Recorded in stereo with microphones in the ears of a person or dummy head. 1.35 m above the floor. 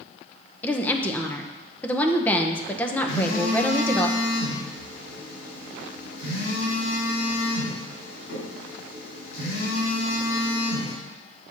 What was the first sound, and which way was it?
A woman speaking, 10° left (ahead or behind).